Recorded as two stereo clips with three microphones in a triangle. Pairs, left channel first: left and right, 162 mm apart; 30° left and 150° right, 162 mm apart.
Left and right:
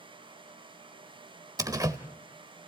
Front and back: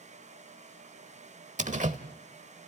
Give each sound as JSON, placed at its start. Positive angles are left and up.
{"t": 1.6, "sound": "a door slam", "azimuth_deg": -150, "distance_m": 1.0}